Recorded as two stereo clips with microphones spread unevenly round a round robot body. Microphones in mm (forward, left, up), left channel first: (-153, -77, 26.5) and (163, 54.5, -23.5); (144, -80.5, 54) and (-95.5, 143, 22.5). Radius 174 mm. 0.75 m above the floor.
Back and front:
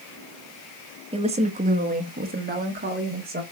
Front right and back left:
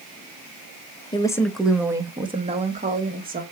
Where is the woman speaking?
25° left, 0.9 m; by 3.4 s 80° left, 1.8 m.